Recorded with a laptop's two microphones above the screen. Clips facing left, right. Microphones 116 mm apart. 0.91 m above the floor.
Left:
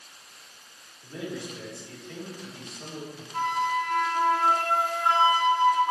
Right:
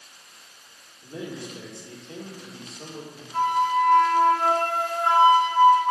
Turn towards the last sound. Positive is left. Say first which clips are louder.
# right 5 dB
turn(degrees=-55)  # may be behind; listen again after turning